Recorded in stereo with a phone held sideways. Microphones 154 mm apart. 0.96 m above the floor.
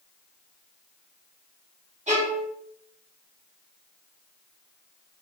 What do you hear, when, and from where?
2.1 s a violin: 50° right (ahead or behind), 1.2 m